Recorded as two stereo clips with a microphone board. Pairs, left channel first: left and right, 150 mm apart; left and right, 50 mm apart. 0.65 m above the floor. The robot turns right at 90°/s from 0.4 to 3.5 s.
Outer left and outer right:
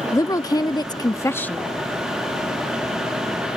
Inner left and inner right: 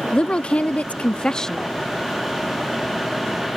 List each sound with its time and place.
0.1 s a woman speaking: 25° left (ahead or behind); by 1.6 s 5° left (ahead or behind)